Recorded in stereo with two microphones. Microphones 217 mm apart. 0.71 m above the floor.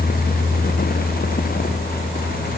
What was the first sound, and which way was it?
Only background noise.